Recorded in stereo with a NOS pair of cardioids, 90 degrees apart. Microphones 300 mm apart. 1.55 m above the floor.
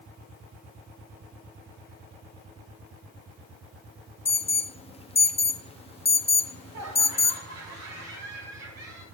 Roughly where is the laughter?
Ahead right.